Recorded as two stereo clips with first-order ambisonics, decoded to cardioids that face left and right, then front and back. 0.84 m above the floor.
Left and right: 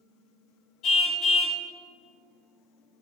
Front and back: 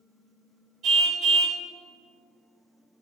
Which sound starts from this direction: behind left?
A car horn, at 0.8 s.